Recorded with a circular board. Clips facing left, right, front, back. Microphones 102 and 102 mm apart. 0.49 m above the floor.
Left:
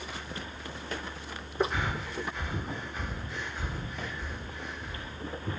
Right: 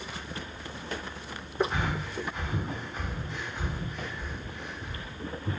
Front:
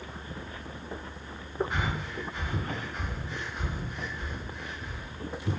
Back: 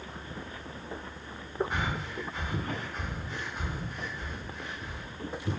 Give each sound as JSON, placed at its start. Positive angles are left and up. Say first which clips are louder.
{"t": 1.7, "sound": "breathing", "louder": "right 1 dB, even", "azimuth_deg": -90, "distance_m": 1.9}